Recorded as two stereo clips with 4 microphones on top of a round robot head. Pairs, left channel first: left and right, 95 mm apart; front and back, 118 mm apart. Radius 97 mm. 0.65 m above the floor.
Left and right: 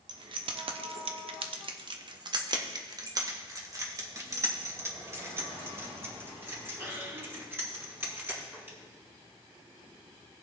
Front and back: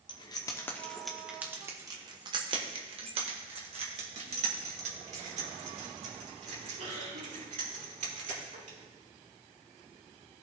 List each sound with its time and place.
0.1 s keys jangling: 50° right, 0.8 m; by 8.8 s 155° right, 4.5 m